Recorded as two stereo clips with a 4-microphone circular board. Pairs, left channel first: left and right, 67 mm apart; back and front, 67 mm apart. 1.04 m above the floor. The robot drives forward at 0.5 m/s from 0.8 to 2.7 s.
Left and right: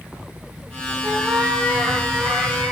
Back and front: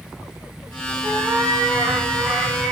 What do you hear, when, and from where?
1.0 s a cat meowing: 25° right, 6.5 m